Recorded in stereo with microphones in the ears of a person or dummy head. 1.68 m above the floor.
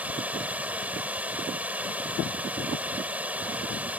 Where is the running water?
5° right (ahead or behind).